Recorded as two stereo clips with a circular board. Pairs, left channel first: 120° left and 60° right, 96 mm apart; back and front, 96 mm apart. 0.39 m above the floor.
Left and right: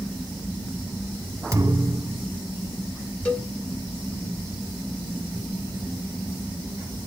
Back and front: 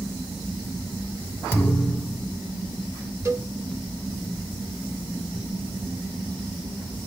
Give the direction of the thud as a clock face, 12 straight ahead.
4 o'clock.